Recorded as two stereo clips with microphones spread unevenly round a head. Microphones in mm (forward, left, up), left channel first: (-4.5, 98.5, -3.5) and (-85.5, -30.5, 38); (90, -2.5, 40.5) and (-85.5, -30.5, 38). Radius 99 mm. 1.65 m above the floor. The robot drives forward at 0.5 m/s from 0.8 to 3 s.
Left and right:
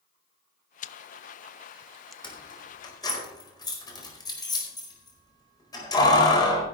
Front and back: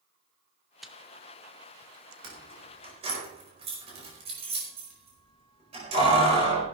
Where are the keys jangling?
125° left, 4.5 m.